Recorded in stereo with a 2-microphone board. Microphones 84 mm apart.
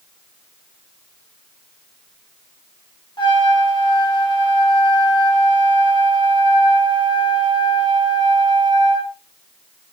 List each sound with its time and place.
3.2 s a trumpet: 60° left (ahead or behind), 1.0 m